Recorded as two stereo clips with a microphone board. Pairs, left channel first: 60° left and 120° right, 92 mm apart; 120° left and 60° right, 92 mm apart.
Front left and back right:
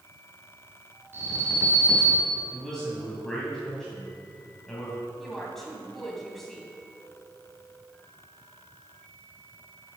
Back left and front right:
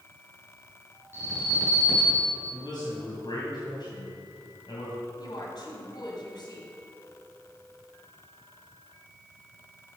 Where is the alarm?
Straight behind, 3.5 m.